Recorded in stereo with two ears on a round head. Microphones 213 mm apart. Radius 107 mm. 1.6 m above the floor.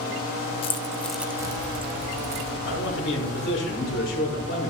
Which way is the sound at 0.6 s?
25° left (ahead or behind).